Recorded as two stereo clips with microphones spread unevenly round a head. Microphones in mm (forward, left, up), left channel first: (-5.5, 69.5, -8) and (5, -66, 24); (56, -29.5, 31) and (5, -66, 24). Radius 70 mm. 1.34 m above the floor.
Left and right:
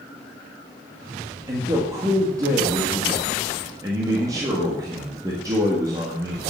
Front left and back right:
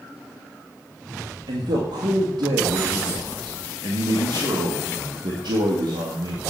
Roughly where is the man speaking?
Behind right.